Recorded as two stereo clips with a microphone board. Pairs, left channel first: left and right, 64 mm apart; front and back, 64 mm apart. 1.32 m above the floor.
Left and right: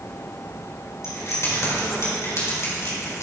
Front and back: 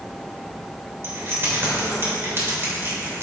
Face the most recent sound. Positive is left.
turn(degrees=130)